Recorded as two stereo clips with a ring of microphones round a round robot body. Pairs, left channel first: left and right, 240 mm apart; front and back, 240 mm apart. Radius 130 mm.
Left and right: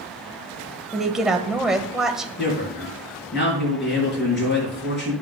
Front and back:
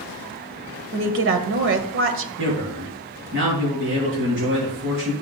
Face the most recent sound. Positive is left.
turn(degrees=135)